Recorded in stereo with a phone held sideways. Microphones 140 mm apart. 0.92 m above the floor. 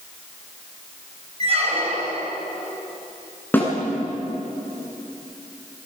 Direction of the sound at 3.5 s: 15° left (ahead or behind).